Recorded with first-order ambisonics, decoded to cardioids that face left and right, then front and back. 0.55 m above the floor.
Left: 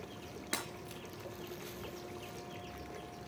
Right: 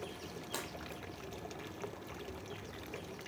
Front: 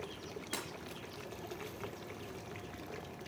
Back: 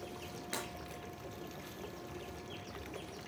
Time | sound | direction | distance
0.5 | breaking glass | 95° left | 4 m